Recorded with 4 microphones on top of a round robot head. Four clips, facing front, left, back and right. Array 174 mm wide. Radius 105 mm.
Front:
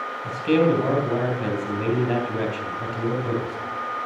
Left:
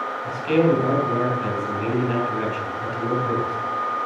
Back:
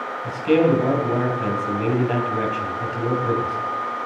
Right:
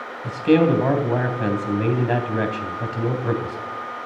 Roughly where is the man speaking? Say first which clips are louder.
Right 3 dB, back 2 dB; right.